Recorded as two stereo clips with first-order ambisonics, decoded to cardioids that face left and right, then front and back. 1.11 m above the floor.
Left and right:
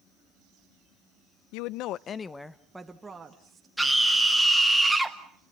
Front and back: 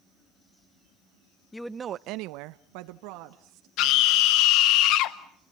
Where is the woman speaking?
80° left, 0.6 m; by 3.7 s 165° right, 1.8 m.